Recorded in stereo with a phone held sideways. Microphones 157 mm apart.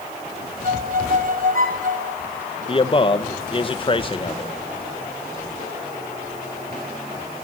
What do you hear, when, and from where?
0.6 s a violin: 55° right (ahead or behind), 3 m
2.7 s a man speaking: 35° left (ahead or behind), 1.7 m